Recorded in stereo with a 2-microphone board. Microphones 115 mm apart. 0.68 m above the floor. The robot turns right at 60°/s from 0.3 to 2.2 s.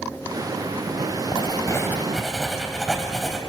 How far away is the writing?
About 2.5 m.